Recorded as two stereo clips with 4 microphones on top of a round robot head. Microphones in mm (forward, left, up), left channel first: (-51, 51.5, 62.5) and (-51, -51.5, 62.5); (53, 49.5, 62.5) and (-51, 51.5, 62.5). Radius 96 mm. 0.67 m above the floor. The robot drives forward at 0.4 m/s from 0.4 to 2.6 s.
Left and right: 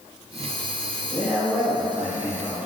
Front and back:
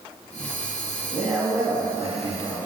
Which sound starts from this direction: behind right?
A man speaking, at 1.1 s.